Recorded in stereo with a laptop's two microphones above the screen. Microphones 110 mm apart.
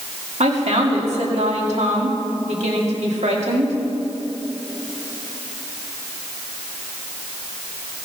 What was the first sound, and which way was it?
A woman speaking, 80° right.